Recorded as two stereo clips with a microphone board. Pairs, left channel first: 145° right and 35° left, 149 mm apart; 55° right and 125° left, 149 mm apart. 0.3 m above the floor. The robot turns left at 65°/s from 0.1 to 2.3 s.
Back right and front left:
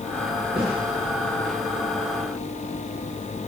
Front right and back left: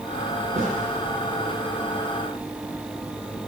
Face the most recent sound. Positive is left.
turn(degrees=-30)